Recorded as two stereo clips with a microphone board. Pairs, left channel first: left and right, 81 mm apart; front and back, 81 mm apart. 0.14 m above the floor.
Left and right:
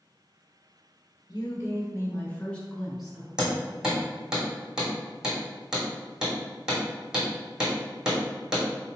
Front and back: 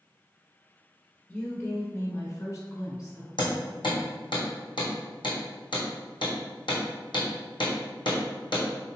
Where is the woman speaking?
60° left, 2.0 m; by 3.3 s 15° right, 1.6 m.